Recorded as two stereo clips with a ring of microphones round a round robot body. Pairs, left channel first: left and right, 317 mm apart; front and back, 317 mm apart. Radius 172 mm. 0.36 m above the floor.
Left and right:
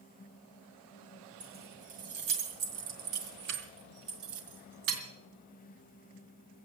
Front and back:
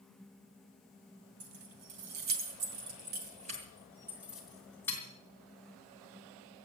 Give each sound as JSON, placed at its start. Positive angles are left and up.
{"t": 1.4, "sound": "keys jangling", "azimuth_deg": -165, "distance_m": 2.0}